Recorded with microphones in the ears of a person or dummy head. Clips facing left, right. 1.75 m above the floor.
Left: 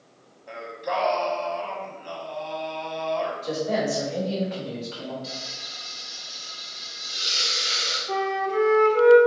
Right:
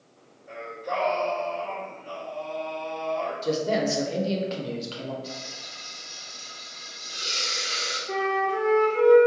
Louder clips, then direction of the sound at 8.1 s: Left 1 dB; 20° right (ahead or behind).